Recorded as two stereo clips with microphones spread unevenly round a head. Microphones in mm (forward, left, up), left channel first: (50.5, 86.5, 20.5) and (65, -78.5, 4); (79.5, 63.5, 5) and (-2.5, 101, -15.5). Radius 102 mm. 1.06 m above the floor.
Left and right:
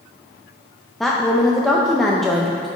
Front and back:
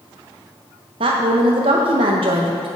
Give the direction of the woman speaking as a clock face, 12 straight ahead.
6 o'clock.